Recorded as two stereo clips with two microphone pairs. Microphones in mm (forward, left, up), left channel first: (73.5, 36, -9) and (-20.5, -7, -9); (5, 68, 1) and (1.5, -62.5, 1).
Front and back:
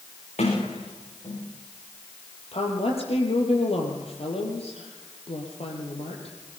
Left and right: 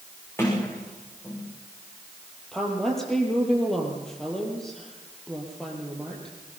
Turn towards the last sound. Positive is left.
turn(degrees=0)